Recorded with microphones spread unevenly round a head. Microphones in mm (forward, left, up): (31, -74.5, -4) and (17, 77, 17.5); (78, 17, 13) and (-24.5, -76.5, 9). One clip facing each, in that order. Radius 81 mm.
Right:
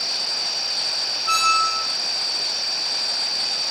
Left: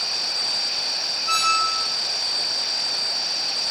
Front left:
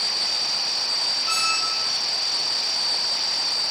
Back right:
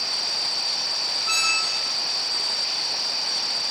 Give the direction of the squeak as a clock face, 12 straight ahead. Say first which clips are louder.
Right 2 dB, front left 2 dB; 6 o'clock.